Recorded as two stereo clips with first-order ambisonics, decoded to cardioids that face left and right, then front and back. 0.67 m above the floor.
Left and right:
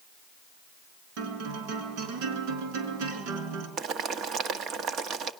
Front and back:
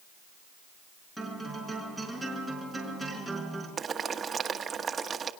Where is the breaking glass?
I don't hear breaking glass.